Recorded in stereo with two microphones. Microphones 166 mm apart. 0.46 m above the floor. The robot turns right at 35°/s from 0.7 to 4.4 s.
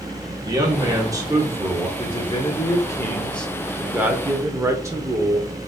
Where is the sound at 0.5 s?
25° right (ahead or behind), 1.3 m; by 1.9 s 15° right (ahead or behind), 1.3 m.